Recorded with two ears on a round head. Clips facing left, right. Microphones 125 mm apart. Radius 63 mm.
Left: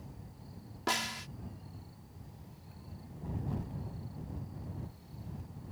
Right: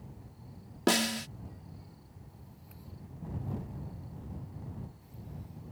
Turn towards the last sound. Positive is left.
turn(degrees=-60)  # may be behind; listen again after turning